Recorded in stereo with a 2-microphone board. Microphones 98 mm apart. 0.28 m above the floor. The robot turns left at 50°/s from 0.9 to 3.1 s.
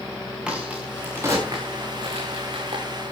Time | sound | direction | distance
0.5 | a crack | 10° right (ahead or behind) | 9.5 m